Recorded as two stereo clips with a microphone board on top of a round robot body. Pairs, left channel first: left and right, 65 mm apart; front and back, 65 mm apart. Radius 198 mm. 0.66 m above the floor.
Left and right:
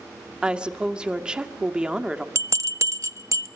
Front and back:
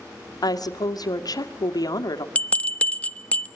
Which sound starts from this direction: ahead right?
A bell, at 2.4 s.